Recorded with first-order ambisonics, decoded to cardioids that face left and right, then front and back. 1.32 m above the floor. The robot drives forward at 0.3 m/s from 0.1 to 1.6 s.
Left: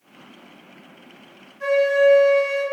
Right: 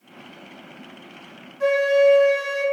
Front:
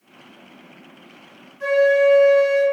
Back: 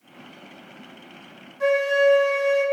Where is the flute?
150° right, 1.0 m.